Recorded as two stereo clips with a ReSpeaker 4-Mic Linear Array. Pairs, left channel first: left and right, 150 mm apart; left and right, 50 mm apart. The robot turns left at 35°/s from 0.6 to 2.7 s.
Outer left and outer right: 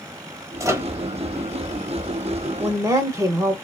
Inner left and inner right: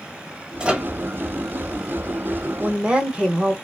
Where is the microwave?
20° right (ahead or behind), 0.9 m; by 0.9 s 15° right (ahead or behind), 0.9 m.